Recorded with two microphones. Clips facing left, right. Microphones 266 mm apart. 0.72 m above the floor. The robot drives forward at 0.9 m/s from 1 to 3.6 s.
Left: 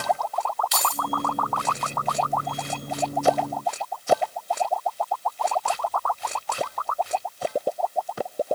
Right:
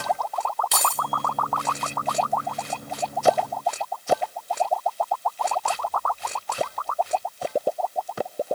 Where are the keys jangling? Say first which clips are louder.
Even; 60° right (ahead or behind), 1.3 m.